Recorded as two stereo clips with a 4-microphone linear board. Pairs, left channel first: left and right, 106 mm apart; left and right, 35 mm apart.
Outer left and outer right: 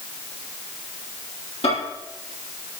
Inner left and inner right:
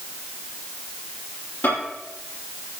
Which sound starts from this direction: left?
A microwave, at 1.6 s.